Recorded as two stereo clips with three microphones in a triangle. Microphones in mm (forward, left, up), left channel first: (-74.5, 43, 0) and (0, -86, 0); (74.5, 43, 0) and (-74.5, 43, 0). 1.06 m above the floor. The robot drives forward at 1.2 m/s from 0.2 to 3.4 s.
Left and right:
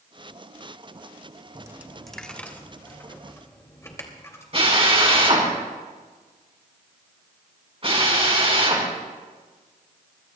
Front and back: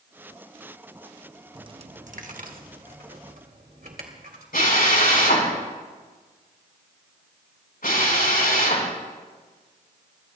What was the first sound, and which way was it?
A dropped coin, 120° right.